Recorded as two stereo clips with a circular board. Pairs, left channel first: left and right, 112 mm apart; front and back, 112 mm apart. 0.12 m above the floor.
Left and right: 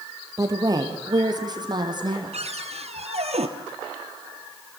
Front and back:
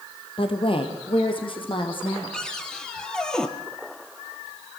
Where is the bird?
I don't hear a bird.